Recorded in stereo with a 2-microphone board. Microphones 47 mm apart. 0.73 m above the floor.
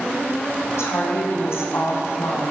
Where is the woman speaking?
70° left (ahead or behind), 4.5 m.